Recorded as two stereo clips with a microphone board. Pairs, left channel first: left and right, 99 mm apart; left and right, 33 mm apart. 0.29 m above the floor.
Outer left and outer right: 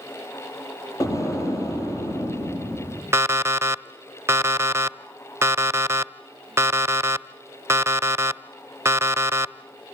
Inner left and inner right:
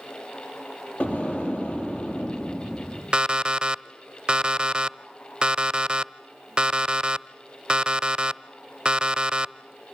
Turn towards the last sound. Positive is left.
turn(degrees=-25)  # may be behind; listen again after turning